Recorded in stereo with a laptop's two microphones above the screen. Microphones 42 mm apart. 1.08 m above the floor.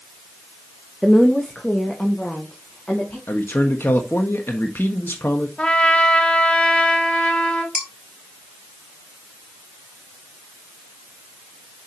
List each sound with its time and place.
1.0 s a woman speaking: 5° left (ahead or behind), 0.9 m; by 3.2 s 35° left (ahead or behind), 3 m
3.3 s a man speaking: 60° left (ahead or behind), 1.3 m
5.6 s a trumpet: 30° left (ahead or behind), 1.1 m
7.8 s dishes clattering: 5° right (ahead or behind), 3 m